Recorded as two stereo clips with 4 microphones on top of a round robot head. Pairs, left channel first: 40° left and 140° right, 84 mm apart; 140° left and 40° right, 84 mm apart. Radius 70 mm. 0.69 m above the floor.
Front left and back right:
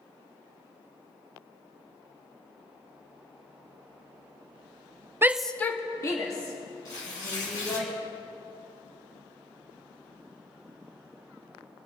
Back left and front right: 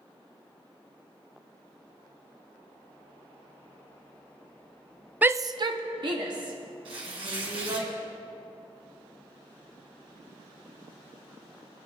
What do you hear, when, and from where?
5.2 s a shout: 100° right, 0.5 m; by 7.8 s 5° right, 4 m
6.8 s tearing paper: 10° right, 3 m